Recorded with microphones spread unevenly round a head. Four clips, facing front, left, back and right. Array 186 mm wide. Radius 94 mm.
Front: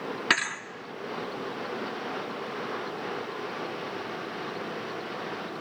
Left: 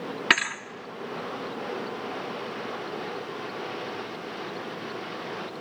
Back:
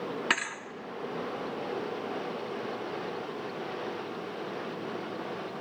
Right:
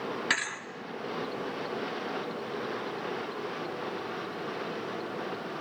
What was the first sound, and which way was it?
A thud, 50° left.